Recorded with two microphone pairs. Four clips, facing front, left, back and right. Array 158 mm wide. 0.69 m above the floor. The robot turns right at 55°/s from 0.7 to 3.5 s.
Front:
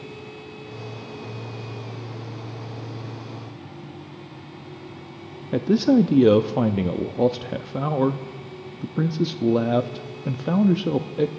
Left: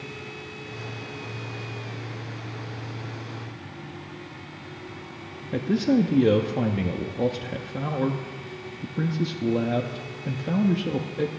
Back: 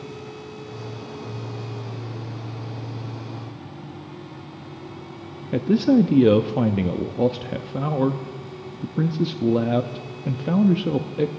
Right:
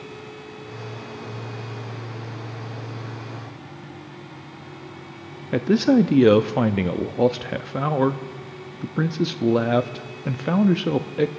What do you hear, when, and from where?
5.5 s a man speaking: 85° right, 0.5 m